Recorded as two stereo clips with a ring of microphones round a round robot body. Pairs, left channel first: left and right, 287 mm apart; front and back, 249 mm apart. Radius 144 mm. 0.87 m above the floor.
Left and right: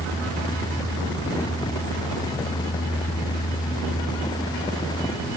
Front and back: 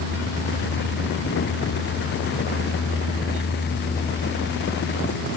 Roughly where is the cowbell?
I don't hear a cowbell.